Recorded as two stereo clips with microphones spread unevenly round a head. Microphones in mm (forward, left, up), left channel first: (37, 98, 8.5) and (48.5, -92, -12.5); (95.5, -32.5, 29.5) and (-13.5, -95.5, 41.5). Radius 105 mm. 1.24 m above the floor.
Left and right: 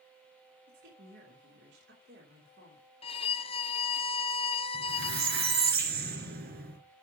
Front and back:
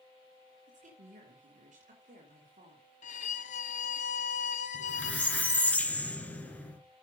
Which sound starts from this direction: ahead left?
A violin, at 3.0 s.